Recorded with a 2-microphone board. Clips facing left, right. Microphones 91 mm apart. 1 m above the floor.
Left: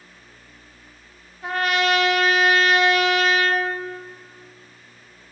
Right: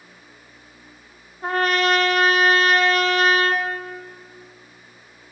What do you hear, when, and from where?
1.4 s a trumpet: 40° right (ahead or behind), 0.7 m